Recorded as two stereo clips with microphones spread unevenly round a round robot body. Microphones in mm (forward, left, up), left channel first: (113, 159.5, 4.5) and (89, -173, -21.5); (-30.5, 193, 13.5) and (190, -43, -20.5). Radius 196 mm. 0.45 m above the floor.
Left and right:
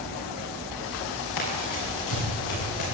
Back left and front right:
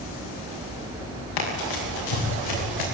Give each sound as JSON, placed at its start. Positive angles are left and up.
{"t": 1.4, "sound": "running footsteps", "azimuth_deg": 130, "distance_m": 8.5}